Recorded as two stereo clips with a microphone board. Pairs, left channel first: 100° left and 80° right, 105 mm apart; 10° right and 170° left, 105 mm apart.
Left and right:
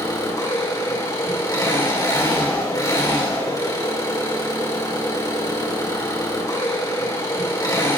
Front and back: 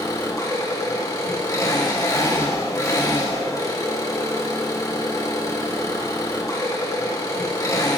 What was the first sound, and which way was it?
An engine running, 45° left.